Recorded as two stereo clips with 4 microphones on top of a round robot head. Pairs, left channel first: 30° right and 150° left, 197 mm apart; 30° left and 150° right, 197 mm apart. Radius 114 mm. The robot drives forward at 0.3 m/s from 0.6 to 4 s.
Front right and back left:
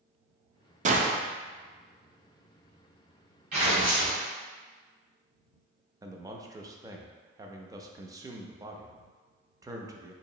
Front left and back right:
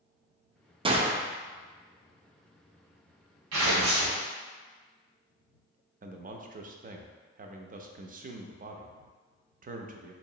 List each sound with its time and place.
0.8 s a gunshot: 165° left, 0.5 m; by 1.2 s 170° left, 0.6 m
3.5 s tearing paper: 160° right, 1.1 m
6.0 s a man speaking: 145° right, 0.5 m